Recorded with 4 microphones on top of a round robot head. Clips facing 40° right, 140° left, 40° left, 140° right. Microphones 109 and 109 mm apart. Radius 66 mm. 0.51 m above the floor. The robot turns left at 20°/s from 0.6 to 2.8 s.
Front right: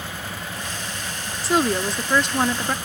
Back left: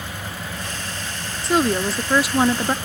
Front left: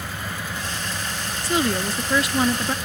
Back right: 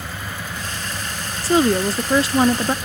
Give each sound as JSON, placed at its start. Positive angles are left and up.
{"t": 1.4, "sound": "a woman speaking", "azimuth_deg": -130}